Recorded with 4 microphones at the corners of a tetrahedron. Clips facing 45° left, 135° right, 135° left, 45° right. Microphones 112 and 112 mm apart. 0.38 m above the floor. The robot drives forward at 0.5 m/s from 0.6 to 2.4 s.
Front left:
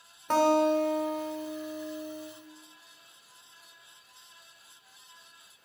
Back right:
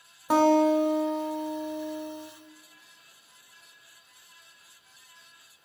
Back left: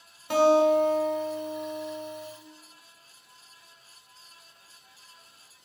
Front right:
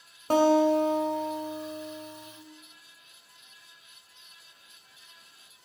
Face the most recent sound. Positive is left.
turn(degrees=-150)